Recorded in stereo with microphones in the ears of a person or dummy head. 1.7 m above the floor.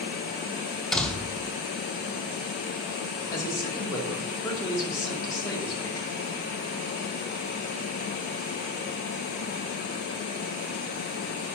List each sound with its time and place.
0.9 s a door slam: 5° left (ahead or behind), 0.8 m
3.3 s a man speaking: 20° left (ahead or behind), 2.5 m